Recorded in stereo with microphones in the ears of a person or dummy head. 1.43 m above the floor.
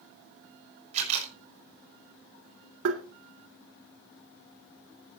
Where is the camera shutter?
40° right (ahead or behind), 6 m.